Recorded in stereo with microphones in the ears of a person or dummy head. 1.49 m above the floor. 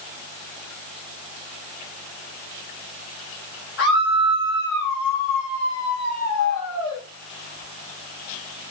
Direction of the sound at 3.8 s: 60° left (ahead or behind).